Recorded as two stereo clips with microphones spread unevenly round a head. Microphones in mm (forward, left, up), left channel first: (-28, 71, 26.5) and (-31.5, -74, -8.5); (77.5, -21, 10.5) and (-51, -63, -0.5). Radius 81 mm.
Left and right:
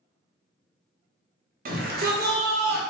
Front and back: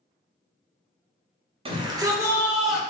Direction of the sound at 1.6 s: 110° right.